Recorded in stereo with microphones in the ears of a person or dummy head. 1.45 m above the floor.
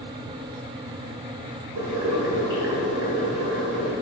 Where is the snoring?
No snoring in this recording.